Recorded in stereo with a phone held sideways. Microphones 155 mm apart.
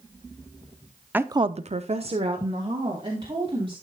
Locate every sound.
1.1 s a woman speaking: 10° right (ahead or behind), 0.7 m; by 3.7 s 30° right (ahead or behind), 3.5 m